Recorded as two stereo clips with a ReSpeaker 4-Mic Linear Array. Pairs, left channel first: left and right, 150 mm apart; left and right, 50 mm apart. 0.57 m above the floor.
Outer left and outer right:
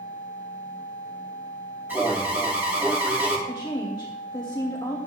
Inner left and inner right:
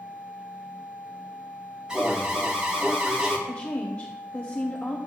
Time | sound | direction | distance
1.9 | an alarm | 15° right (ahead or behind) | 3 m
3.5 | a woman speaking | 30° left (ahead or behind) | 1.7 m